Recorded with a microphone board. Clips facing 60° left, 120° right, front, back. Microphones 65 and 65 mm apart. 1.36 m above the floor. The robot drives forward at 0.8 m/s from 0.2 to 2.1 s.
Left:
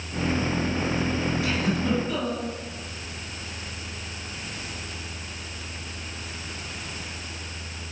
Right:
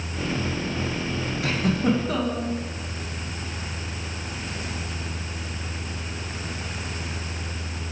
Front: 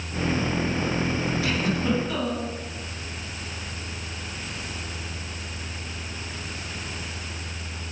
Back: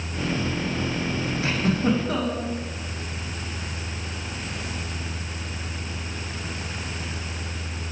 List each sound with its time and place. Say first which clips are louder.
1.4 s a giggle: right 2 dB, back 5 dB; 130° right, 1.1 m; by 2.5 s 150° right, 1.5 m